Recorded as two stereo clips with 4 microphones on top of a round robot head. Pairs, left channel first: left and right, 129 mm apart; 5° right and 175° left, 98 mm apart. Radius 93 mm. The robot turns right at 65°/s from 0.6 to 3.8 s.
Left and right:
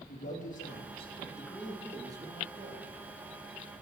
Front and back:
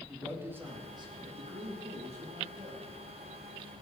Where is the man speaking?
110° left, 3.5 m; by 2.9 s 100° right, 3.5 m.